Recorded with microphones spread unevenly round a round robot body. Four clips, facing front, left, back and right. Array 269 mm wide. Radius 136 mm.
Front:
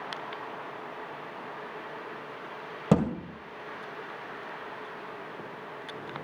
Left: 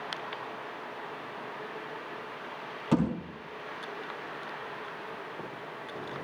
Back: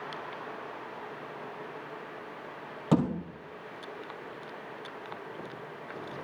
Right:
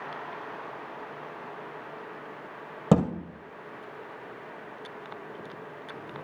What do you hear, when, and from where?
2.9 s a thud: 65° right, 1.9 m